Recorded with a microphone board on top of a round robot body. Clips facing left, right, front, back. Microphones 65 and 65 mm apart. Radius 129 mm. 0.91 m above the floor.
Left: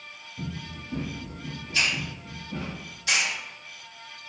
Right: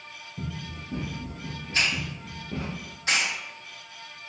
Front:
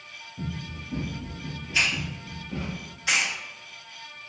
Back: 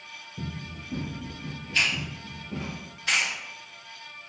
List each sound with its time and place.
0.4 s running footsteps: 160° right, 1.3 m; by 2.7 s 90° right, 1.8 m
1.7 s a hiss: 75° right, 0.9 m